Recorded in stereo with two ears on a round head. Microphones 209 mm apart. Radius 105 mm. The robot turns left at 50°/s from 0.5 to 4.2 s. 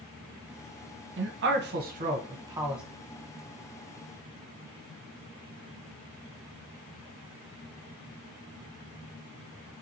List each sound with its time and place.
1.2 s a man speaking: 55° right (ahead or behind), 0.7 m; by 2.8 s centre (ahead or behind), 0.7 m